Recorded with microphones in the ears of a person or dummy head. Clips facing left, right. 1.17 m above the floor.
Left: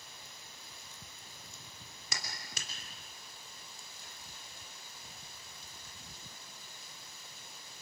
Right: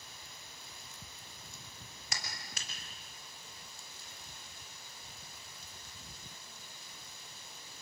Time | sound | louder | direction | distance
2.1 | a clap | left 1 dB | 80° left | 3 m